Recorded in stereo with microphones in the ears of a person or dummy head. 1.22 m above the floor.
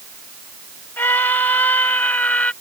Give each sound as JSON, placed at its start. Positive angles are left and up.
{"t": 1.0, "sound": "a scream", "side_deg": 10}